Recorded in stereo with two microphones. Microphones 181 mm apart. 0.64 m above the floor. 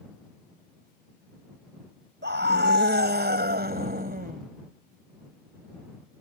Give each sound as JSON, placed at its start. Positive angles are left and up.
{"t": 2.2, "sound": "a scream", "side_deg": -80}